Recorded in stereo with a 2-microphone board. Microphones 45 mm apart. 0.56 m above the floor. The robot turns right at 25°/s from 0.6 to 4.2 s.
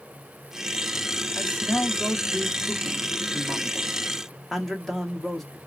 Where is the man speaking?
105° left, 0.9 m; by 5.6 s 175° left, 0.9 m.